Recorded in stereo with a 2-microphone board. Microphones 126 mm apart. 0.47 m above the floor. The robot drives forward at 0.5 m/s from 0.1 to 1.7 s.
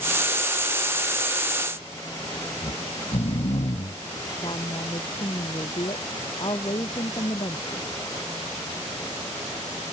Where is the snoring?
60° left (ahead or behind).